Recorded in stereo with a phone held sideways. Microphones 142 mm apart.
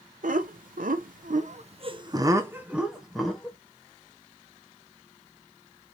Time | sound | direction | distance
0.2 | laughter | 70° right (ahead or behind) | 0.9 m